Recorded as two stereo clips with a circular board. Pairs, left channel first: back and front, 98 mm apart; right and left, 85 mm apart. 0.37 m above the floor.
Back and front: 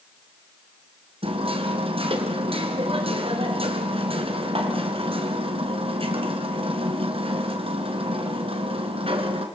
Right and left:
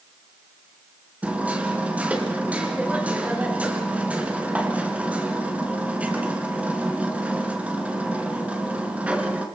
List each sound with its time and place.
1.2 s hammering: 15° left, 3 m